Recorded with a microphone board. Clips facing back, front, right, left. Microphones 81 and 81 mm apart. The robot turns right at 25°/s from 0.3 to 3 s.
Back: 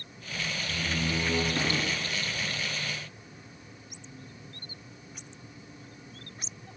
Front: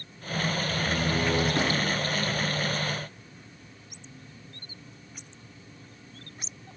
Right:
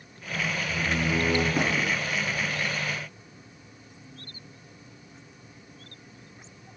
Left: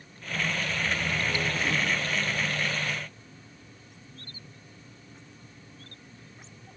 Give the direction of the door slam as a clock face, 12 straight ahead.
3 o'clock.